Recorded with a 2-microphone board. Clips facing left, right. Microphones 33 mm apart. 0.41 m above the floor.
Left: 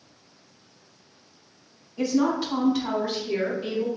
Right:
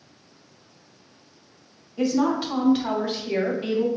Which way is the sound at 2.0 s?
15° right (ahead or behind).